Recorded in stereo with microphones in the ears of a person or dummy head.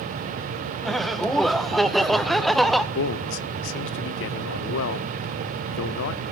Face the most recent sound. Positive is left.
turn(degrees=65)  # may be behind; listen again after turning